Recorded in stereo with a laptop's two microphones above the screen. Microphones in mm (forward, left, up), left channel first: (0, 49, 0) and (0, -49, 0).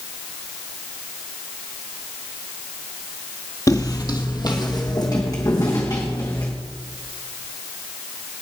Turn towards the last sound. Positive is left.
turn(degrees=40)  # may be behind; listen again after turning